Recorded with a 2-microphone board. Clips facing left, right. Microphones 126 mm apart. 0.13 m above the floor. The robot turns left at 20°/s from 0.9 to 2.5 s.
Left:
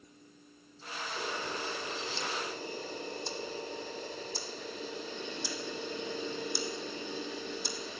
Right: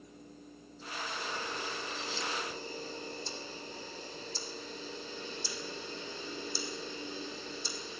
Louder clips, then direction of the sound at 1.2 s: Left 4 dB; 80° left.